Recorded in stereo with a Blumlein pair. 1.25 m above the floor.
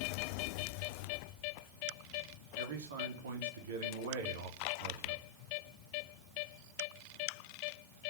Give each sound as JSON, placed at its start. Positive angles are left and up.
{"t": 2.6, "sound": "a man speaking", "azimuth_deg": -60, "distance_m": 4.0}